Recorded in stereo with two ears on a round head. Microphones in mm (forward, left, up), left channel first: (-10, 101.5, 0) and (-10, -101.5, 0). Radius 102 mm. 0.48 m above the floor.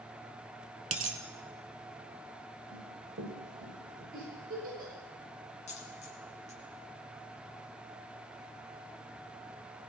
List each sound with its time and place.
0.9 s a dropped coin: 35° right (ahead or behind), 1.1 m
2.7 s running footsteps: 55° right (ahead or behind), 6.5 m; by 4.0 s 45° right (ahead or behind), 7.5 m
4.1 s a giggle: 40° right (ahead or behind), 9.5 m
5.7 s a dropped coin: 30° left (ahead or behind), 2.5 m